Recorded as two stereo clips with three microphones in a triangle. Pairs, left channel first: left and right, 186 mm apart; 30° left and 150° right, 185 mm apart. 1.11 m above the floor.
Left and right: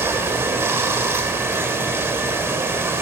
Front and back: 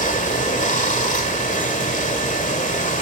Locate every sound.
0.0 s running water: 15° right, 1.8 m